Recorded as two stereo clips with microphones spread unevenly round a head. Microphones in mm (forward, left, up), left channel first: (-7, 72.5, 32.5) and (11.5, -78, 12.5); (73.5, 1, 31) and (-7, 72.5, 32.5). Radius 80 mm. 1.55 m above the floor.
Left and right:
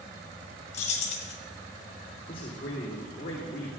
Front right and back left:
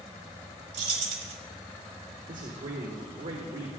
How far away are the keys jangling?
About 1.3 m.